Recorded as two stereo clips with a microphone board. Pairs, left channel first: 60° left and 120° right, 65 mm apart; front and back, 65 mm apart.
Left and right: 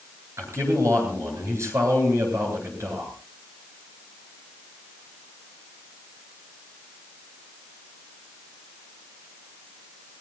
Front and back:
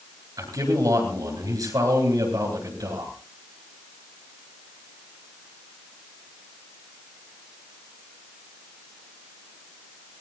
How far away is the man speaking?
About 9 m.